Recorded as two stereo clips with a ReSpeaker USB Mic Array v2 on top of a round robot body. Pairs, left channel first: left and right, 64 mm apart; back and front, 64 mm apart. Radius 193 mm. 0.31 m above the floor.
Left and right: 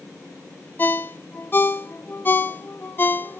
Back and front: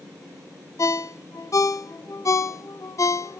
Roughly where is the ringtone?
Behind left.